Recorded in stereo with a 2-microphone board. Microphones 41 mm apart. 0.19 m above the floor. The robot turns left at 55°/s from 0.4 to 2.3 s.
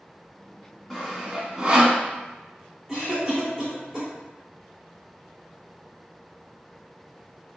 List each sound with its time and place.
0.9 s sawing: 5° left (ahead or behind), 0.6 m; by 2.0 s 35° right (ahead or behind), 0.6 m
2.9 s a cough: 10° right (ahead or behind), 1.8 m